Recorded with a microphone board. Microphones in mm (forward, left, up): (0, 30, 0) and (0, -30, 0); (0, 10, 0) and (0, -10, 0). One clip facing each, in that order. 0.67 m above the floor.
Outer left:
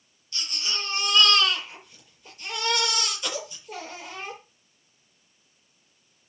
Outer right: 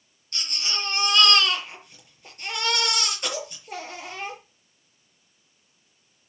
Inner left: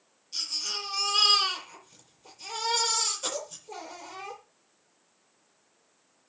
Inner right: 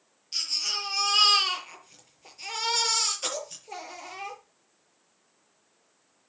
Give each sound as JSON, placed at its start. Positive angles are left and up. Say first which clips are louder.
{"t": 0.3, "sound": "a baby crying", "louder": "outer right 1 dB, inner right 3 dB", "side_deg": -50, "distance_m": 7.0}